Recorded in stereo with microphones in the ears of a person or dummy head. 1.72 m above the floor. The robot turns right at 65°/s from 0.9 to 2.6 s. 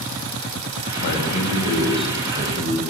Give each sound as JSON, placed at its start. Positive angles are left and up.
{"t": 1.0, "sound": "a man speaking", "azimuth_deg": 115, "distance_m": 9.0}